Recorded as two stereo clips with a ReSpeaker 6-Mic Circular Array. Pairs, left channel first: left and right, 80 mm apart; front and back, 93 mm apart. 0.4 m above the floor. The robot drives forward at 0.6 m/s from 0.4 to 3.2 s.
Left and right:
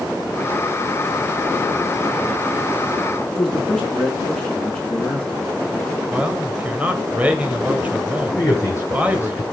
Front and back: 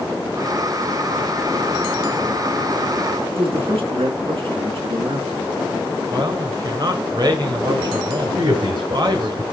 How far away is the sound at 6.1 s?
About 1.7 m.